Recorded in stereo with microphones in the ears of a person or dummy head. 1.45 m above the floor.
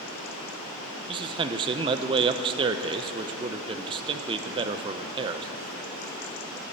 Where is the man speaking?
25° right (ahead or behind), 0.7 m.